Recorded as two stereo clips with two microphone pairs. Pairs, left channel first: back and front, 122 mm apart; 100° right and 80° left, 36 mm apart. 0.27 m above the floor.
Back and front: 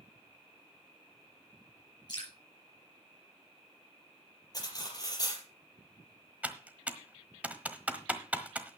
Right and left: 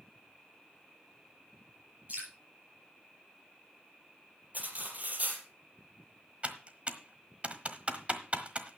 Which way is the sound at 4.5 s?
125° left.